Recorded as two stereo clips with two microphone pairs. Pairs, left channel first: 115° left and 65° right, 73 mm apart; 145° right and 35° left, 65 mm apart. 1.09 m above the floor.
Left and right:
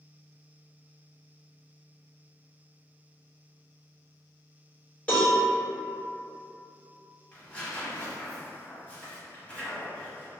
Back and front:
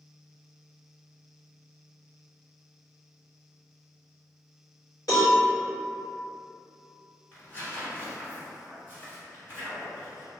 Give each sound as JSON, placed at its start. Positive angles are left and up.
{"t": 5.1, "sound": "a cowbell", "azimuth_deg": -175, "distance_m": 1.4}
{"t": 7.3, "sound": "tearing paper", "azimuth_deg": 175, "distance_m": 1.1}